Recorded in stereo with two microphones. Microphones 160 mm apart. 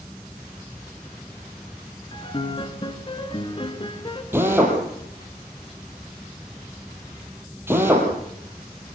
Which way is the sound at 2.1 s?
30° left (ahead or behind).